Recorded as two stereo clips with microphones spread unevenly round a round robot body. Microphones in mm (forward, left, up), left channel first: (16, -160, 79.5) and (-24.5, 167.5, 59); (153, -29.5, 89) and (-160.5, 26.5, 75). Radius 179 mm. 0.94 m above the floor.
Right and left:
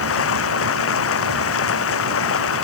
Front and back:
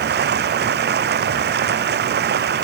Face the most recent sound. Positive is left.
turn(degrees=-130)